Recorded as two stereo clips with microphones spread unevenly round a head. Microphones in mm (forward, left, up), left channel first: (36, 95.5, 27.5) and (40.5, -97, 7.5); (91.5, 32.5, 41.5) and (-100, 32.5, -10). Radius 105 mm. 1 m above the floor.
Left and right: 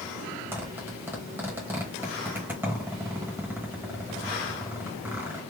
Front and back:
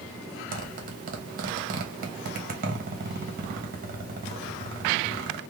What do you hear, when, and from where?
0.5 s a zipper: 165° right, 1.1 m